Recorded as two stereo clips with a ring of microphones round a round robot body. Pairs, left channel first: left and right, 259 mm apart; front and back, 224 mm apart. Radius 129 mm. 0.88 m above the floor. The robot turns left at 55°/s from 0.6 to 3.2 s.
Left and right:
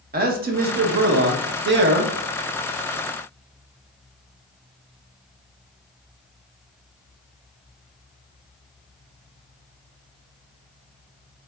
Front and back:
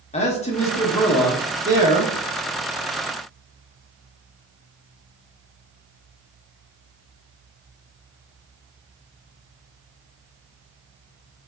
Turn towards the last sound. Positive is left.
turn(degrees=165)